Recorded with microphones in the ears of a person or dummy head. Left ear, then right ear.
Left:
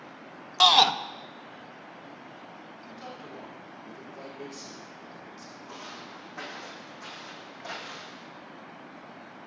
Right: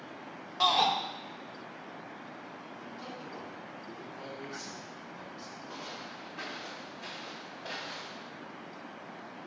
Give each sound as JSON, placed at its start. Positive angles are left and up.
{"t": 0.6, "sound": "a shout", "side_deg": 45, "distance_m": 0.5}
{"t": 2.9, "sound": "a man speaking", "side_deg": 75, "distance_m": 4.0}
{"t": 5.7, "sound": "footsteps", "side_deg": 45, "distance_m": 3.5}